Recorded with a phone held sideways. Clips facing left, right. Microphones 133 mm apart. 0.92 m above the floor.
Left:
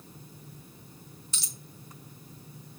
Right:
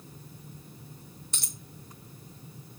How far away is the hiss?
No hiss in this recording.